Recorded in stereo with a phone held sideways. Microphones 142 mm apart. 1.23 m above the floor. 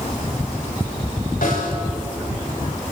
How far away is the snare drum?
About 9.5 m.